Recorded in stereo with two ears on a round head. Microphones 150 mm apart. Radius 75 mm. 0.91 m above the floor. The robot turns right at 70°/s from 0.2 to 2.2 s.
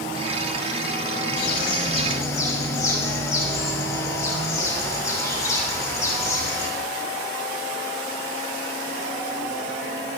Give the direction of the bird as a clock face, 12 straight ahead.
9 o'clock.